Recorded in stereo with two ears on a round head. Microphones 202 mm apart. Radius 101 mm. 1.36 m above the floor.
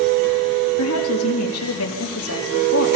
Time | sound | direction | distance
0.8 | a woman speaking | 70° left (ahead or behind) | 3 m